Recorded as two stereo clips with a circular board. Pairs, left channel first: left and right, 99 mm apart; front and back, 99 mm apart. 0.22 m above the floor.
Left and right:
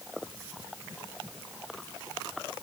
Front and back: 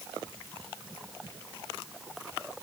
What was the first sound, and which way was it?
Only background noise.